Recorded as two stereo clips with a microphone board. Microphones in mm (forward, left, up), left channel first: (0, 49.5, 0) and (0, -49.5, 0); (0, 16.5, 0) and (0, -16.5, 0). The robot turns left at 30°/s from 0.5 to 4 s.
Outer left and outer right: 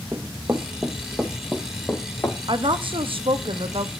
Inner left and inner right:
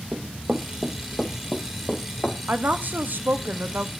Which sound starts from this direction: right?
Running footsteps, at 0.1 s.